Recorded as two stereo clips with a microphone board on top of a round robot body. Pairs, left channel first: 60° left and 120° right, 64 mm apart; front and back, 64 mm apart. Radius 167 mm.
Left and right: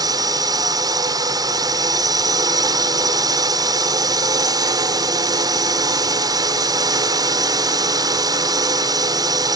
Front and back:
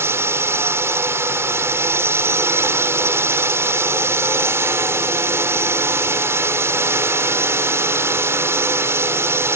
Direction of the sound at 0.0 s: 130° right.